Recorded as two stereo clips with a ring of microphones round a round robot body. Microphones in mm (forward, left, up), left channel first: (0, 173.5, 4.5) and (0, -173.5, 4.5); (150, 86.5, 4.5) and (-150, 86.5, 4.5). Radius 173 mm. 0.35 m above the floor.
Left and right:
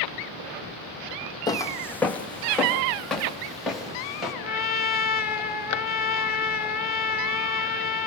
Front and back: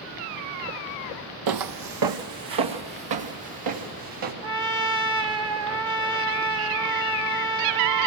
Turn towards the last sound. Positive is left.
turn(degrees=125)